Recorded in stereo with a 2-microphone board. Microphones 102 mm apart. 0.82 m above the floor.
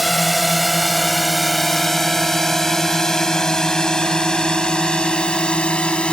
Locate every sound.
0.0 s a drone: centre (ahead or behind); by 6.1 s 10° left (ahead or behind)